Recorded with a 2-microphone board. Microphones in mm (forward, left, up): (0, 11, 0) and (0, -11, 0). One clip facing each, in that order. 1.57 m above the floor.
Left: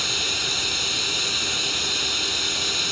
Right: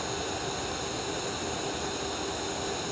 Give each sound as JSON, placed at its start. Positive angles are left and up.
{"t": 0.0, "sound": "running water", "side_deg": 70}